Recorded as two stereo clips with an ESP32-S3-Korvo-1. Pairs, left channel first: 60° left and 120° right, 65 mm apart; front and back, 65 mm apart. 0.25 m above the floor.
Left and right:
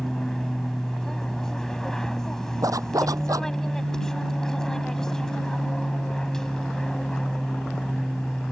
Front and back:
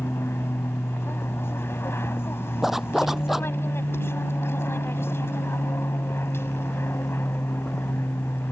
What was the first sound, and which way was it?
An aircraft, 15° right.